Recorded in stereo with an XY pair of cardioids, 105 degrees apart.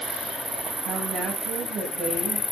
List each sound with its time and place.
0.8 s a woman speaking: 65° right, 3.5 m